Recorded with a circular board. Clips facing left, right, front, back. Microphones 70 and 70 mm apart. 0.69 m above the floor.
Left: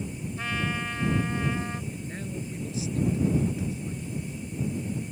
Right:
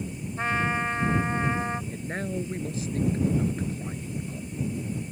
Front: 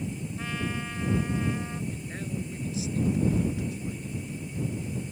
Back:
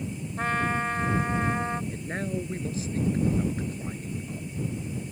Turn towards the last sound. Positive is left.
turn(degrees=-135)